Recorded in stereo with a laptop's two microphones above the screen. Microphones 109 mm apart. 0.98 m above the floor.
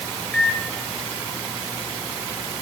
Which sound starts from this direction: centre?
A microwave, at 0.3 s.